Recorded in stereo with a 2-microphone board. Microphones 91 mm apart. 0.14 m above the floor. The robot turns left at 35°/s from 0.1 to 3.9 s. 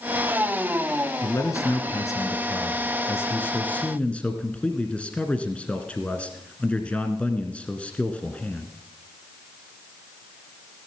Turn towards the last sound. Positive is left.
turn(degrees=25)